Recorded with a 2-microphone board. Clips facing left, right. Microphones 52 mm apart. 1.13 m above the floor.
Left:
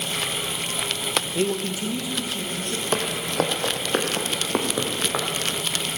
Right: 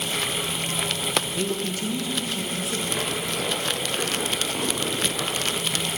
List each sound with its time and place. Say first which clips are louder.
1.4 s a man speaking: left 2 dB; 30° left (ahead or behind), 1.1 m; by 2.8 s 5° right (ahead or behind), 1.7 m
2.9 s footsteps: left 3 dB; 60° left (ahead or behind), 2 m; by 5.2 s 65° left (ahead or behind), 4.5 m